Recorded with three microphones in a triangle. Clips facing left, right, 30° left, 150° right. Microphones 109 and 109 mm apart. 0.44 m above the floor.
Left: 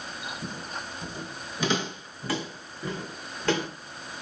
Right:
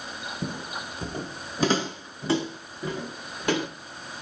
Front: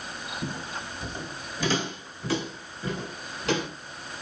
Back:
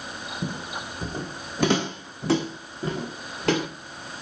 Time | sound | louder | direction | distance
0.4 | footsteps | right 3 dB, back 3 dB | 75° right | 0.8 m